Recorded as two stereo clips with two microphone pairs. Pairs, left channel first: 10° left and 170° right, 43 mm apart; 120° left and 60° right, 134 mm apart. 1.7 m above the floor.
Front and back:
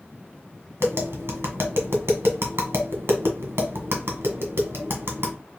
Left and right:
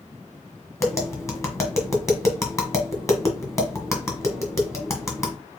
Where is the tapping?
175° right, 1.3 m.